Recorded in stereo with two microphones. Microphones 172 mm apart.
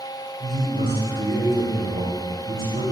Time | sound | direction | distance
0.4 | a man speaking | 65° right (ahead or behind) | 3 m